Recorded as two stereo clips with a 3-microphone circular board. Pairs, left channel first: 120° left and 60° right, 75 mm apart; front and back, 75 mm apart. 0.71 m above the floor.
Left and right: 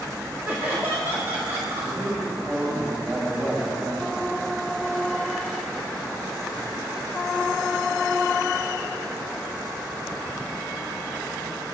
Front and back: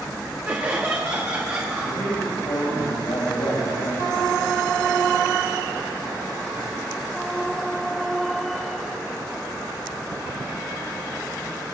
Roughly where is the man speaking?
Ahead.